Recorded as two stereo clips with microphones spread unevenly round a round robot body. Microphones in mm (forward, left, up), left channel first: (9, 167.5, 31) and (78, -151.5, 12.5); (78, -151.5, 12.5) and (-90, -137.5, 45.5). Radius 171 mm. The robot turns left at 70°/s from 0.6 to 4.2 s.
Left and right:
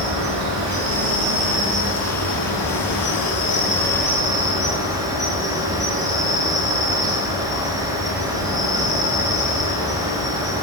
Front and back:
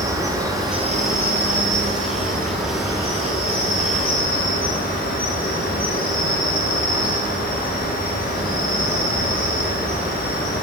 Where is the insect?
110° right, 2 m; by 10.6 s straight ahead, 2 m.